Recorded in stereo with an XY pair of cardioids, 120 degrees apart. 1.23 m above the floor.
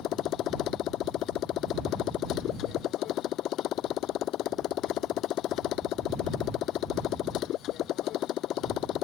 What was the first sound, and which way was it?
A motorcycle, 65° left.